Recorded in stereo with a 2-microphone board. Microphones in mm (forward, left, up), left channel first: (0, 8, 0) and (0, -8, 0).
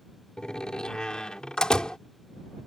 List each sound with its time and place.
0.4 s a door slam: 70° left (ahead or behind)